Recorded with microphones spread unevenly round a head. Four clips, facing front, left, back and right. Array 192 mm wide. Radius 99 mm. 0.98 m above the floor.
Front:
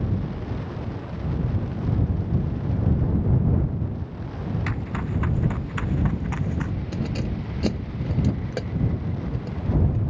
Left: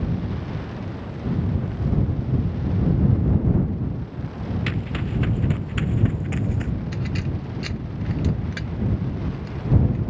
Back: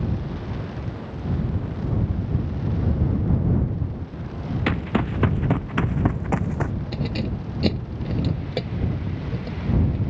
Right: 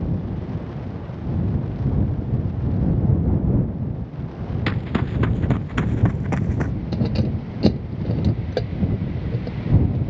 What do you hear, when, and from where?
4.7 s running footsteps: 155° right; by 6.7 s 140° right
6.9 s keys jangling: 100° right